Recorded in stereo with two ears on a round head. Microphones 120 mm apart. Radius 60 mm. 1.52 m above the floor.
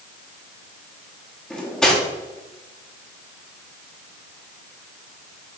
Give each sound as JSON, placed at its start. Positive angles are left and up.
{"t": 1.5, "sound": "cutlery clinking", "side_deg": 5, "distance_m": 1.3}